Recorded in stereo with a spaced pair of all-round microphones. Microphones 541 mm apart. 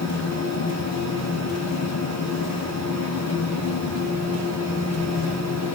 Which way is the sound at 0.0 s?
30° left (ahead or behind).